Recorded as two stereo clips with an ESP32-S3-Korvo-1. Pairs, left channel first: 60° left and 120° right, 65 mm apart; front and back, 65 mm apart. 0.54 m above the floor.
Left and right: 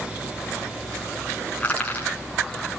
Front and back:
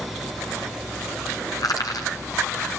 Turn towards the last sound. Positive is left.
turn(degrees=-10)